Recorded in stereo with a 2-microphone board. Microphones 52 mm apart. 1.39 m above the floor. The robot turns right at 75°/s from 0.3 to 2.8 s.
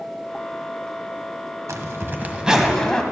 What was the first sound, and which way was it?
A zipper, 70° right.